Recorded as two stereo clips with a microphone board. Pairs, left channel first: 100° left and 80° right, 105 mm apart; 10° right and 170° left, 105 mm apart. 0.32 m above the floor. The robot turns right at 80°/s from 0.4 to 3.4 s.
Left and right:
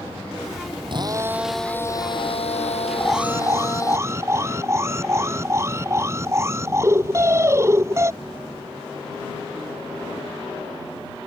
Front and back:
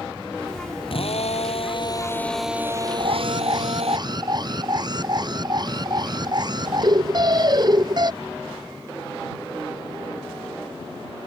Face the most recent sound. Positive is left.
turn(degrees=-145)